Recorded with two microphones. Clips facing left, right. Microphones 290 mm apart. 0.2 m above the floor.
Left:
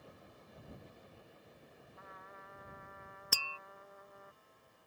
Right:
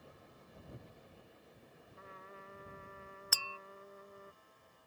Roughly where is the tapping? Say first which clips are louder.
Left 6 dB; left.